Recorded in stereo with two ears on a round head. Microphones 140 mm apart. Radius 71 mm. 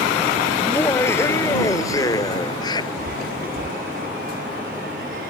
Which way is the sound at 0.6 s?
15° left (ahead or behind).